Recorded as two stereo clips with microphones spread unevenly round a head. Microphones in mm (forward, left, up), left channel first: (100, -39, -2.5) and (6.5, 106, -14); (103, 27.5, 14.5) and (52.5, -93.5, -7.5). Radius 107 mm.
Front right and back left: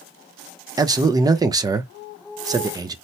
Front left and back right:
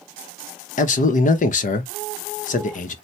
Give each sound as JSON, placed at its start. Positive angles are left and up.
{"t": 0.8, "sound": "a man speaking", "azimuth_deg": 50, "distance_m": 0.7}